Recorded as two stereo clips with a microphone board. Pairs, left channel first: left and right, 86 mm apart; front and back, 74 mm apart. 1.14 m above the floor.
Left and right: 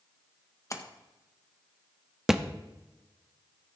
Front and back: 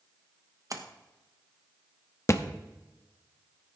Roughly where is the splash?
Behind left.